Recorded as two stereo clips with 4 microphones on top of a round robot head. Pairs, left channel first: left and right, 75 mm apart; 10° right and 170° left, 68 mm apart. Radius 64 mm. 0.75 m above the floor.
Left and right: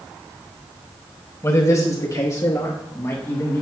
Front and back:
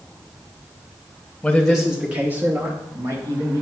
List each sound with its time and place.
1.4 s a man speaking: 60° left, 1.3 m; by 3.6 s 150° left, 2.5 m